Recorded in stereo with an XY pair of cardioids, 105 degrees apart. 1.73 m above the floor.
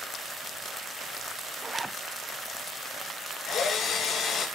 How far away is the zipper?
About 0.5 m.